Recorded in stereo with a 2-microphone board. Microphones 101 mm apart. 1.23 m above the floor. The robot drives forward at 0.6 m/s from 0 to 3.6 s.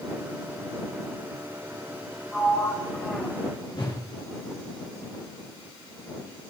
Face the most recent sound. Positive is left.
turn(degrees=50)  # may be behind; listen again after turning